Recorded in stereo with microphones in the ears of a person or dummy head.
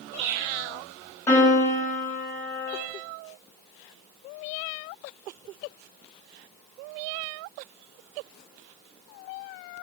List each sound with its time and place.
1.3 s a piano: 15° left (ahead or behind), 1.1 m